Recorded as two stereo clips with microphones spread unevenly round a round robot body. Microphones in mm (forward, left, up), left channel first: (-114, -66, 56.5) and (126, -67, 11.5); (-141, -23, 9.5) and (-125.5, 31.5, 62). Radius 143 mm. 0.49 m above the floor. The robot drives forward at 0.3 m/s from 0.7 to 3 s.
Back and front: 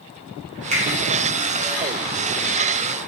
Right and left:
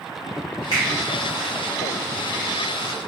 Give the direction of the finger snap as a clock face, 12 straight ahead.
11 o'clock.